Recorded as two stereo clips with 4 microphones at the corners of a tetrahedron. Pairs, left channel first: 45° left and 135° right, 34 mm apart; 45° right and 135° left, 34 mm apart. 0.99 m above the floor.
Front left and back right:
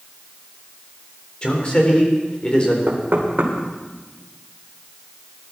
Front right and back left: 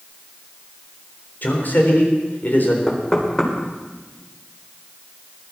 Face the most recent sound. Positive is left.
turn(degrees=-115)